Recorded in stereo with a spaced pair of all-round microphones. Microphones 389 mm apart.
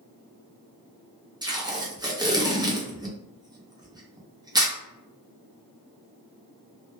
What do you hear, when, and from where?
1.4 s tape being pulled: 10° right (ahead or behind), 0.5 m